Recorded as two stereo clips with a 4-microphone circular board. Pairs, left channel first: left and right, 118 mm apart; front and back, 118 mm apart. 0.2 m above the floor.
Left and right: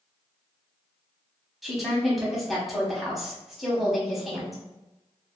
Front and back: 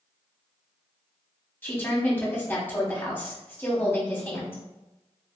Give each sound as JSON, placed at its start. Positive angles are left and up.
{"t": 1.6, "sound": "a woman speaking", "azimuth_deg": -5, "distance_m": 1.0}